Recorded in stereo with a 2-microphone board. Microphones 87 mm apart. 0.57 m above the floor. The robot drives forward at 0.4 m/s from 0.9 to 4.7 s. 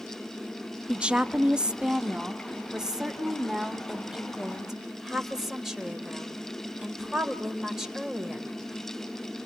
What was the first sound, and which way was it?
A woman speaking, 10° right (ahead or behind).